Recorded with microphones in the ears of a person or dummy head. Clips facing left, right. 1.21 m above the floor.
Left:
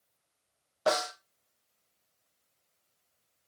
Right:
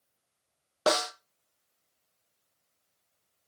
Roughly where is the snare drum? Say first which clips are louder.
Right 1 dB; right.